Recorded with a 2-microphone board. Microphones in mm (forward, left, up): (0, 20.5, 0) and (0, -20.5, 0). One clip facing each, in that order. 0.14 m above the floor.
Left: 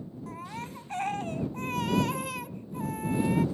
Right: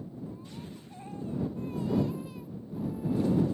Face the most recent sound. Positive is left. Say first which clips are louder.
# left 4 dB
turn(degrees=85)